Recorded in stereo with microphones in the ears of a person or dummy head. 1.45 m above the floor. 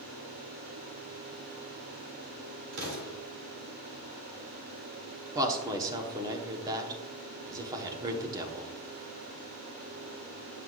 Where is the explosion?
75° right (ahead or behind), 3 m.